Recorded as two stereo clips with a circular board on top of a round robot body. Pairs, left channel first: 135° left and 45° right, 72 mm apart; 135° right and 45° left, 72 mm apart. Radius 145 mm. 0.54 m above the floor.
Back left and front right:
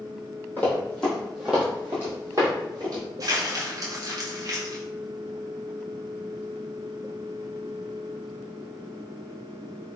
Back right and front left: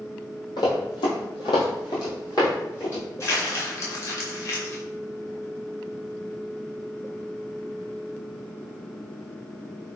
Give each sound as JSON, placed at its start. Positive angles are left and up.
{"t": 0.6, "sound": "running footsteps", "azimuth_deg": -155, "distance_m": 1.1}
{"t": 3.2, "sound": "crumpling", "azimuth_deg": -85, "distance_m": 0.9}